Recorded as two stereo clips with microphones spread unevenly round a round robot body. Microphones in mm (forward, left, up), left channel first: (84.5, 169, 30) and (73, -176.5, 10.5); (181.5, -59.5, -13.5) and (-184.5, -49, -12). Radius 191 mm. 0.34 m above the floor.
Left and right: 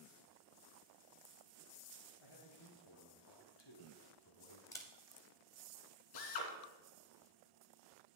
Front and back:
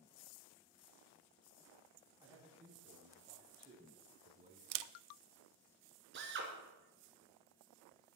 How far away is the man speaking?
About 5.5 m.